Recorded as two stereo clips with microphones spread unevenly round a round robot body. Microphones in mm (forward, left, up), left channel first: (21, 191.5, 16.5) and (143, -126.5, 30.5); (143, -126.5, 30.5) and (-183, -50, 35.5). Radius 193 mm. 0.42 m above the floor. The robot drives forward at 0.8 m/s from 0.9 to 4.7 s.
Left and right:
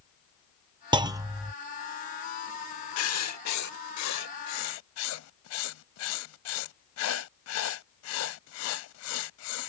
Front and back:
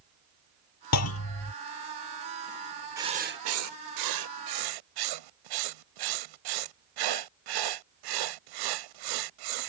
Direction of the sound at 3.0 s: 85° left.